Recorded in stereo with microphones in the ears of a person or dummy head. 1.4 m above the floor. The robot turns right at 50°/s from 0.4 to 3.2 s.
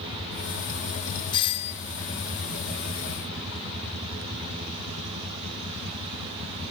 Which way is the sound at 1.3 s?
20° left (ahead or behind).